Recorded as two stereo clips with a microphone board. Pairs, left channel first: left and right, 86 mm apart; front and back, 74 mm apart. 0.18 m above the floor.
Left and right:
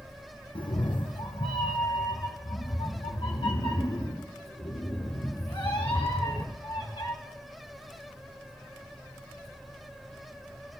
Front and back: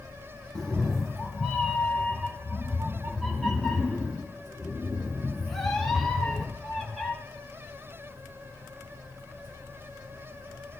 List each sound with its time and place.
0.6 s a cat meowing: 85° left, 1.1 m; by 7.1 s 90° left, 6 m